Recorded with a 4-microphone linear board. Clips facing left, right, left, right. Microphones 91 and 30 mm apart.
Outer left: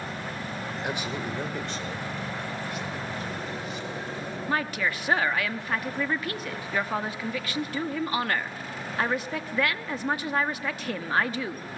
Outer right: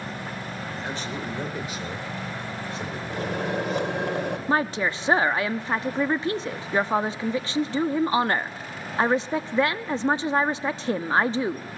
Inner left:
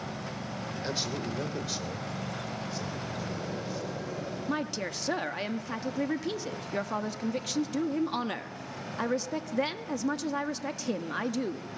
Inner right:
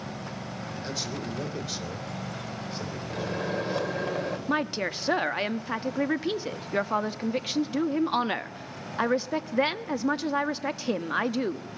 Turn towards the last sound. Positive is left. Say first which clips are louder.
# outer right 3 dB, inner right 4 dB
turn(degrees=-25)  # may be behind; listen again after turning